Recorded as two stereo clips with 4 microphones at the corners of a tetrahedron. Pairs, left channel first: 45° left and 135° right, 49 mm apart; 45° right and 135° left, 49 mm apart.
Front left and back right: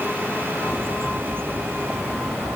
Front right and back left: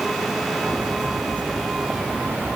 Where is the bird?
170° right.